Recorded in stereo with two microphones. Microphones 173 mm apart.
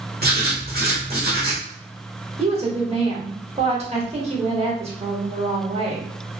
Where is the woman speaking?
35° right (ahead or behind), 1.1 m.